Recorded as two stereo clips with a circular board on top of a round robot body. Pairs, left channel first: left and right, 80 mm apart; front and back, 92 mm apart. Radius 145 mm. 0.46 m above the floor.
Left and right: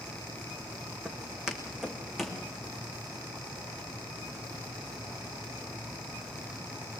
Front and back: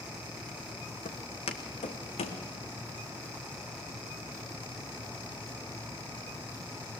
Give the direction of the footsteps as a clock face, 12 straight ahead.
12 o'clock.